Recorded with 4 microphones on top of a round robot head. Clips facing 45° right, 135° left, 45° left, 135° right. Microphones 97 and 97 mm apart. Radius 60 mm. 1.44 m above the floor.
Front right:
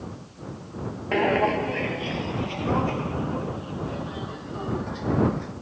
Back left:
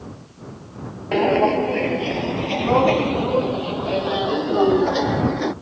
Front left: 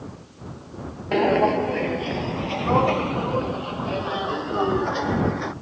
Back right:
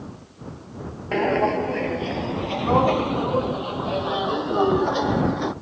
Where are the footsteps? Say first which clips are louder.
Back left 5 dB, front left 2 dB; 100° left; by 5.5 s 155° left.